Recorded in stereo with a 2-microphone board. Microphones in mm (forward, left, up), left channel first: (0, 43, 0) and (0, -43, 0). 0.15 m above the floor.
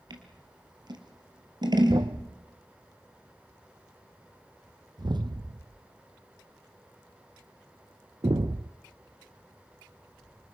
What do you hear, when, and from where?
0.1 s scissors: 55° right (ahead or behind), 2.5 m
1.9 s a thud: 65° right (ahead or behind), 0.5 m